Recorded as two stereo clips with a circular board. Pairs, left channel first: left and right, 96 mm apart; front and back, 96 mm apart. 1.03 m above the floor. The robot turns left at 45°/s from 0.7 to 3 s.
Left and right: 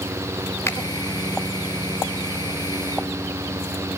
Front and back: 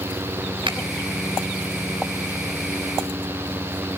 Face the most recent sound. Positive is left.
turn(degrees=45)